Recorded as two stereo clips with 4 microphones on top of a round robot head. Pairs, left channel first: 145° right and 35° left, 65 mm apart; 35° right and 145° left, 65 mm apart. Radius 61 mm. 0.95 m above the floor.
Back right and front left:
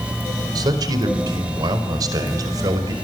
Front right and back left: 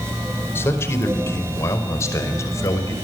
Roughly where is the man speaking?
Ahead.